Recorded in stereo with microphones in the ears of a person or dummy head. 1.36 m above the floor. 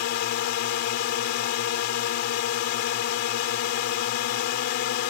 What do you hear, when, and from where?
0.0 s a drone: 60° left (ahead or behind)